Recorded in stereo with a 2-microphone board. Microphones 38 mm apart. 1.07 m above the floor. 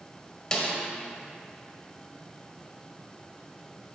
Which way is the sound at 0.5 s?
20° left (ahead or behind).